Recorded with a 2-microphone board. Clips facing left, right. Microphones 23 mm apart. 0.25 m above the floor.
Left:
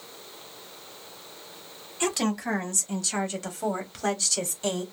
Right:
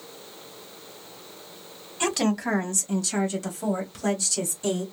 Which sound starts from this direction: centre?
A woman speaking, at 2.0 s.